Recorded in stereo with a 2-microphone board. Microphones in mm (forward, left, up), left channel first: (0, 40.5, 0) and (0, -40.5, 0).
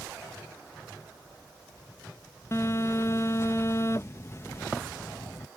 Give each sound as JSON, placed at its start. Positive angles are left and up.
{"t": 2.5, "sound": "a phone buzzing", "side_deg": 35}